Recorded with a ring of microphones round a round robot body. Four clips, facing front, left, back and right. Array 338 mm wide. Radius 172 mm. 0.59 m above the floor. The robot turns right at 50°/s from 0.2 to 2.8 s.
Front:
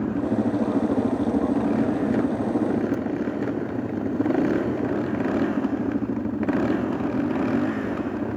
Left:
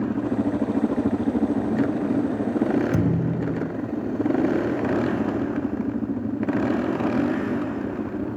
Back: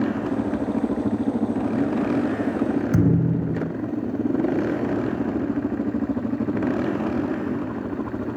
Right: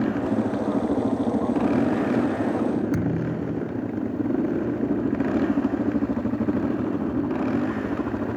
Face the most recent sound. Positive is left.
turn(degrees=165)